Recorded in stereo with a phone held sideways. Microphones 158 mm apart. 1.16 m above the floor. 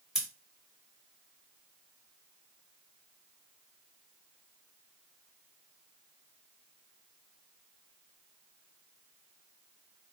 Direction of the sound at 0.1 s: 5° right (ahead or behind).